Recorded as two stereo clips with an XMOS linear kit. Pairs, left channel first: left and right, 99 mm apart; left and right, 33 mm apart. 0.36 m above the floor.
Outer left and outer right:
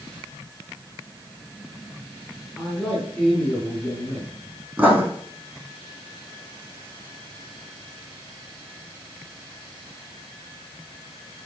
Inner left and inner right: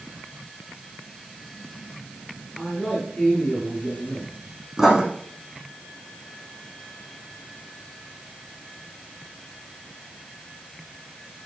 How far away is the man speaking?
About 5 m.